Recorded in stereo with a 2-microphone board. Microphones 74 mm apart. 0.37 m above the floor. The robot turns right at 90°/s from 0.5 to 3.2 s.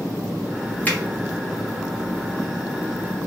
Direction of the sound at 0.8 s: 25° left (ahead or behind).